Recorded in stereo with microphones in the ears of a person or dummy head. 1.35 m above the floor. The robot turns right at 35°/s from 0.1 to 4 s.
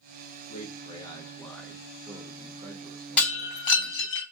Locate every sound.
0.5 s a man speaking: 140° left, 1.2 m; by 4.2 s 95° right, 1.2 m
3.2 s breaking glass: 5° left (ahead or behind), 2.5 m; by 4.2 s 35° left (ahead or behind), 2.5 m